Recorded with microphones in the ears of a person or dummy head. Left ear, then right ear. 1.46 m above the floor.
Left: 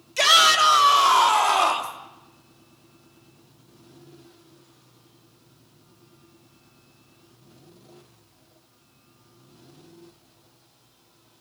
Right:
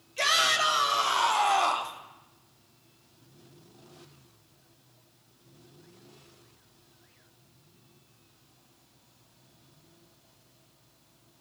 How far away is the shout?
About 4 m.